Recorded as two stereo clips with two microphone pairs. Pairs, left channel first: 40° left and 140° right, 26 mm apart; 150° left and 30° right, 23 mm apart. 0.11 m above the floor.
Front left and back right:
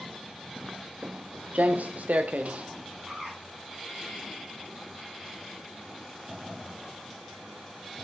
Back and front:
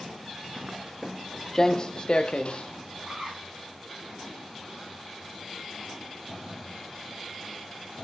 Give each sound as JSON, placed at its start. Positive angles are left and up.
{"t": 0.6, "sound": "footsteps", "azimuth_deg": -70, "distance_m": 0.6}
{"t": 3.1, "sound": "a bird", "azimuth_deg": -75, "distance_m": 8.5}